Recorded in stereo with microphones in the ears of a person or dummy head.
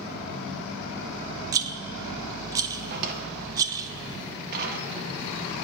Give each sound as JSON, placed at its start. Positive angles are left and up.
{"t": 1.5, "sound": "a rattle", "side_deg": -15, "distance_m": 0.6}
{"t": 2.9, "sound": "a drawer", "side_deg": -45, "distance_m": 1.2}